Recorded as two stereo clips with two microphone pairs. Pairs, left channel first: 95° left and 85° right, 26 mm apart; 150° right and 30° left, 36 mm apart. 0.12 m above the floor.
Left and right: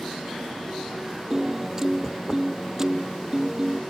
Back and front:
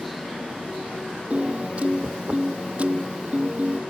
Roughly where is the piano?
Ahead.